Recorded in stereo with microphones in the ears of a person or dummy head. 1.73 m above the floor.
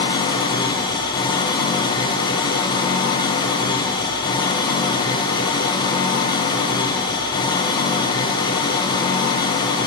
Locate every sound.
0.0 s an engine running: 25° left (ahead or behind), 0.8 m